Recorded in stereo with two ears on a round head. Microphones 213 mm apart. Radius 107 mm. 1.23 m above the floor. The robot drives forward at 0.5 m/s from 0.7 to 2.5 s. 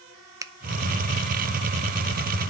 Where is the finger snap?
15° right (ahead or behind), 0.6 m.